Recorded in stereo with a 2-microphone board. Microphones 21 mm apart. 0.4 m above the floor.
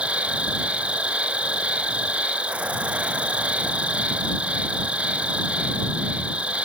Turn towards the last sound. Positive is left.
turn(degrees=-85)